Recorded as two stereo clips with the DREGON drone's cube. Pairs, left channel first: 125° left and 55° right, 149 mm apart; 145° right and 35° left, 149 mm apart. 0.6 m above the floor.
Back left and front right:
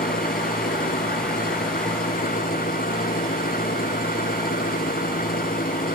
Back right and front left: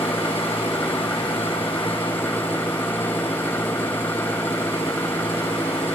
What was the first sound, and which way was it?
An engine running, 140° left.